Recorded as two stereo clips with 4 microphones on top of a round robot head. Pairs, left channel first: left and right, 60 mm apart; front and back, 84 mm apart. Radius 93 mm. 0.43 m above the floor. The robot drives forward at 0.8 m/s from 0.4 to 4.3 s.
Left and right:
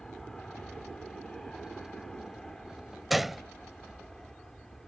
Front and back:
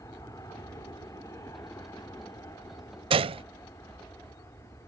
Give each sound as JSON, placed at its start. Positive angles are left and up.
{"t": 0.0, "sound": "an aircraft", "azimuth_deg": 15}
{"t": 3.1, "sound": "a gunshot", "azimuth_deg": 180}